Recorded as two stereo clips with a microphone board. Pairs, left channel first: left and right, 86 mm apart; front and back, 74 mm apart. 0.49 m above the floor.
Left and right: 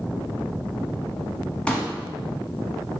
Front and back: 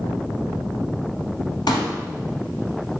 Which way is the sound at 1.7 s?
15° left.